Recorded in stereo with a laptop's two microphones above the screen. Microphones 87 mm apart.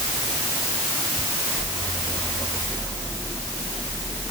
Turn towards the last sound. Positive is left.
No sound to turn to.